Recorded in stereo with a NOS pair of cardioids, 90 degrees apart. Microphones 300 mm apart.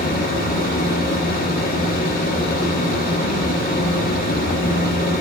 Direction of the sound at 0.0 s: 30° left.